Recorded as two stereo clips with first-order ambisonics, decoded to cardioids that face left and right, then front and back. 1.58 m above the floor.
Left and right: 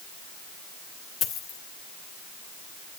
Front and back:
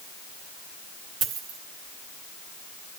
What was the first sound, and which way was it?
A dropped coin, 145° left.